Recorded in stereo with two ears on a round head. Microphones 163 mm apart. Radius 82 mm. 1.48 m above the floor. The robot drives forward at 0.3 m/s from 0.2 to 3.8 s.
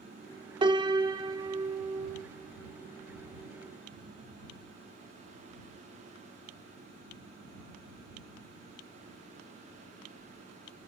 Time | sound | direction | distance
0.6 | a piano | 25° right (ahead or behind) | 2.0 m